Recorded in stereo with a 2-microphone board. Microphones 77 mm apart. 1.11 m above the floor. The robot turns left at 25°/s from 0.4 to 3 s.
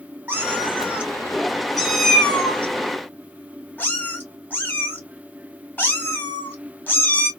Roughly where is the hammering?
No hammering in this recording.